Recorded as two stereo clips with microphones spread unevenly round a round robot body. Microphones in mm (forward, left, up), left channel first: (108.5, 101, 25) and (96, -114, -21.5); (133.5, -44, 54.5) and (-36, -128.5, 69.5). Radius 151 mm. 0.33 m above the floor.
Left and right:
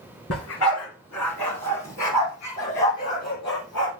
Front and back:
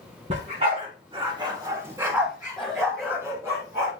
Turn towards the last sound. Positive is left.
turn(degrees=125)